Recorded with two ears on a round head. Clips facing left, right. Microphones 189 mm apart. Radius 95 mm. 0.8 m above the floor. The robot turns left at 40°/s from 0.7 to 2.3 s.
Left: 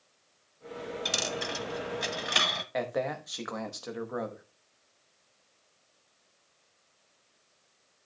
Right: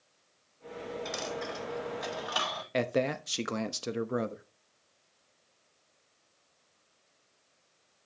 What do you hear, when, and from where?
1.1 s a dropped coin: 45° left (ahead or behind), 0.8 m; by 2.6 s 30° left (ahead or behind), 0.8 m
2.7 s a man speaking: 35° right (ahead or behind), 0.8 m